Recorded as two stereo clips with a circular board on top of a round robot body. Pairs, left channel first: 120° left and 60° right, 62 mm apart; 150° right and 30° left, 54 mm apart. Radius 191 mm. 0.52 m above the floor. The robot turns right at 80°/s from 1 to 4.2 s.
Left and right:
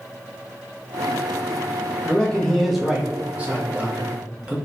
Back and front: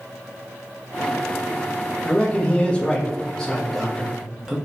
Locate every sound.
2.0 s a man speaking: 160° left, 0.9 m; by 4.5 s 25° right, 0.9 m